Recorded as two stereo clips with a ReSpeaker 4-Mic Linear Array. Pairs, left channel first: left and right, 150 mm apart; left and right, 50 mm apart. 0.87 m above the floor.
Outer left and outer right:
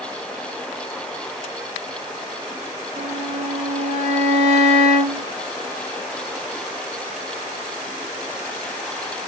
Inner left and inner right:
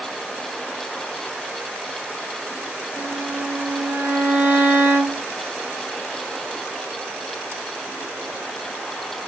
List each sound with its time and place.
3.0 s a violin: 50° right (ahead or behind), 2 m